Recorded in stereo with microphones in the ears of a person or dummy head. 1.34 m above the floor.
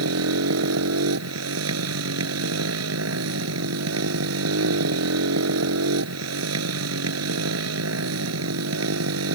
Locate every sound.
0.0 s a motorcycle: 85° right